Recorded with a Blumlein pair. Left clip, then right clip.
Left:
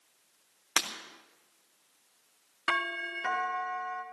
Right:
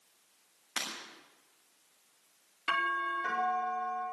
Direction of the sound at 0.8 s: 60° left.